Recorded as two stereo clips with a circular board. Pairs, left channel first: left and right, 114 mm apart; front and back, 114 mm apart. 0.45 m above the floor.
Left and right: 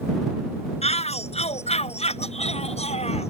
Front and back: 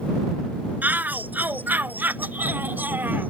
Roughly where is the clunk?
I don't hear a clunk.